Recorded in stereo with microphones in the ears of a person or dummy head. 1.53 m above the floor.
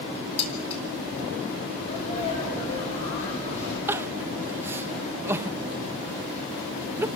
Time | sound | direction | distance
0.4 | dishes clattering | 30° left (ahead or behind) | 2.5 m
1.8 | a sneeze | 35° left (ahead or behind) | 6 m
3.9 | crying | 10° right (ahead or behind) | 0.5 m